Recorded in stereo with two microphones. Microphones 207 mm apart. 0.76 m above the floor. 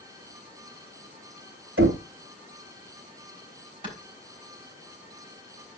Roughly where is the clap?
Right.